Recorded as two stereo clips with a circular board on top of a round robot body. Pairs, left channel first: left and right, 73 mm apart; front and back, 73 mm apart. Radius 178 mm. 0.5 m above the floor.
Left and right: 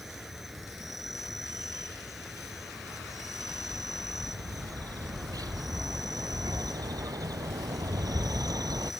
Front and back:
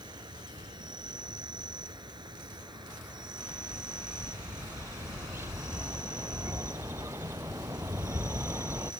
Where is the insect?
175° right.